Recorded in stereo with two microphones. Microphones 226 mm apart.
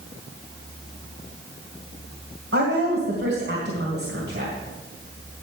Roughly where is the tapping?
No tapping in this recording.